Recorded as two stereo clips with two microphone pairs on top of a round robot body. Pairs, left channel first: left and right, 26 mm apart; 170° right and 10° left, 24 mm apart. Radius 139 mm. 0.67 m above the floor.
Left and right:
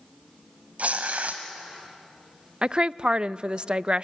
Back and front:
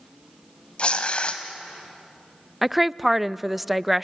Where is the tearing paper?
120° right, 0.9 m.